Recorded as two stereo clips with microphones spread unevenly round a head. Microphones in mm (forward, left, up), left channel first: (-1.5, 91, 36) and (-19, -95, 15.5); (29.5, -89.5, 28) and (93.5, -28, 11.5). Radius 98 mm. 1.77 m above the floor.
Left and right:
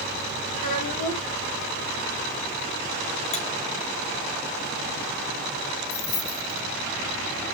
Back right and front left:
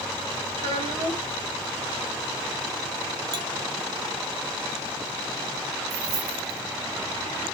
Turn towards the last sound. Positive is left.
turn(degrees=50)